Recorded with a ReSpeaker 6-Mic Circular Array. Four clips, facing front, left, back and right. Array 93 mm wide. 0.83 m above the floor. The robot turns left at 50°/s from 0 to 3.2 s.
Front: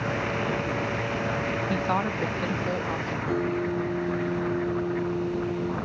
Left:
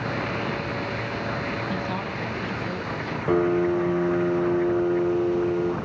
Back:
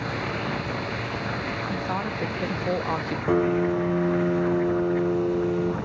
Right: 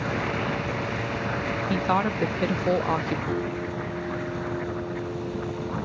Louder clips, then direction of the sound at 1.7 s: Right 5 dB, front 3 dB; 55° right.